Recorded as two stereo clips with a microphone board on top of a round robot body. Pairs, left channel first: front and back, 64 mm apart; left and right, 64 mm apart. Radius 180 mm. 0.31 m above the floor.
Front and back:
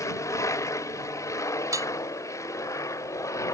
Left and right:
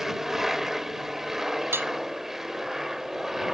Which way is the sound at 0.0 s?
5° right.